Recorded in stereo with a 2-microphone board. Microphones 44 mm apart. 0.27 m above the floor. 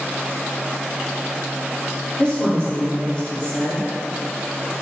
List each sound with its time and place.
2.2 s a woman speaking: 25° left (ahead or behind), 1.5 m